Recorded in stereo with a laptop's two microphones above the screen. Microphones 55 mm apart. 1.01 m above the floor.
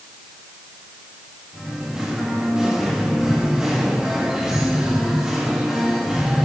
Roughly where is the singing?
Centre.